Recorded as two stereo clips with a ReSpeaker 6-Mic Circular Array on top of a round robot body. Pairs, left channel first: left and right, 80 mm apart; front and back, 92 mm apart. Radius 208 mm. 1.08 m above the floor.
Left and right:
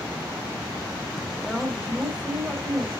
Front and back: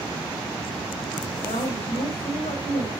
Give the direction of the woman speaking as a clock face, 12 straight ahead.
12 o'clock.